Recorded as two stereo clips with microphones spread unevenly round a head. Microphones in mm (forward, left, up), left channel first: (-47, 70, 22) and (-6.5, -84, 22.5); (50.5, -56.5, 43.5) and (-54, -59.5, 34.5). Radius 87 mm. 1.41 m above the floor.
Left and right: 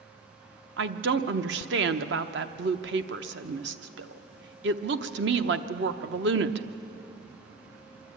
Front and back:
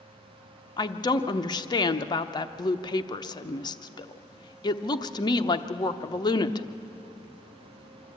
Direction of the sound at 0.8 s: 45° right.